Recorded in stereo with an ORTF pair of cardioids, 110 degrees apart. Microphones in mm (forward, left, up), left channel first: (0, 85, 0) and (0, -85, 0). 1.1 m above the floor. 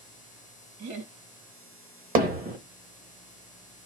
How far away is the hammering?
About 1.2 m.